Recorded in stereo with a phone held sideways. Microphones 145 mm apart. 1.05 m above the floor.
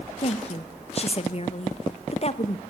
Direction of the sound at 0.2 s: 40° left (ahead or behind).